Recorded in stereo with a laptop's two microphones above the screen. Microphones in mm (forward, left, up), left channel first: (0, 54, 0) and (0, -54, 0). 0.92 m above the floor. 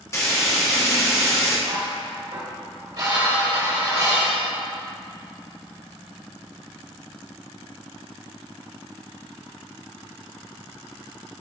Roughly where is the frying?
Left.